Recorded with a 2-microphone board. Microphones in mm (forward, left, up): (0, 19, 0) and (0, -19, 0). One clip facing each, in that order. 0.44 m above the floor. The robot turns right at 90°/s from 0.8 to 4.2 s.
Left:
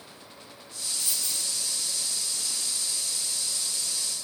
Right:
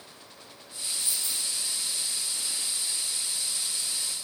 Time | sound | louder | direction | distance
1.0 | a dropped coin | left 1 dB | 80° left | 2 m